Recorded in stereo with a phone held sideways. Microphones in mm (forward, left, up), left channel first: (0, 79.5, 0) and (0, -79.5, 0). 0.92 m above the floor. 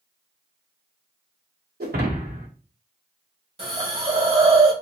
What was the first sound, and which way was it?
Breaking glass, 75° right (ahead or behind).